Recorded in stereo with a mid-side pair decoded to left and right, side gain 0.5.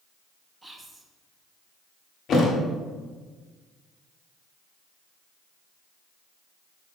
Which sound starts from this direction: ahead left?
A thud, at 2.3 s.